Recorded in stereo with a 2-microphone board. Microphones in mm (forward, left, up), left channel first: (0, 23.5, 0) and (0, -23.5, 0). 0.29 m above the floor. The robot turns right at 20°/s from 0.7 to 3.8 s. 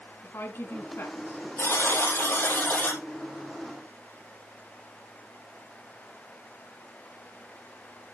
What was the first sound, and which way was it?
A woman speaking, 65° left (ahead or behind).